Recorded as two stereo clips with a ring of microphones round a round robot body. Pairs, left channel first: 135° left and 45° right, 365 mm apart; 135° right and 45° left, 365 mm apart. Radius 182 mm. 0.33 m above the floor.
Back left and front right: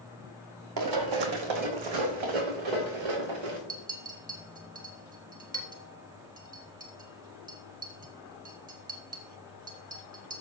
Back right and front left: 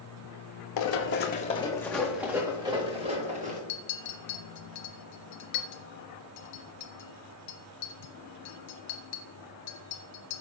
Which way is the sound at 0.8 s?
90° right.